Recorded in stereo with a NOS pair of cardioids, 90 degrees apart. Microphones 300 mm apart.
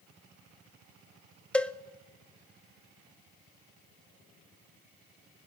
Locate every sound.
1.5 s a cowbell: 5° left, 0.8 m